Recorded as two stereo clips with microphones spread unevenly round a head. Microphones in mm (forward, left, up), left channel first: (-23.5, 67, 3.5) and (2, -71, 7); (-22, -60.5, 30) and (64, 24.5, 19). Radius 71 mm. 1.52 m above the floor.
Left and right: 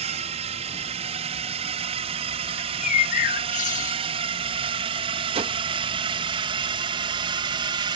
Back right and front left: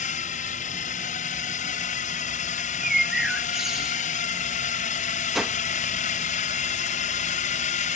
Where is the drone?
125° right; by 8.0 s 135° right.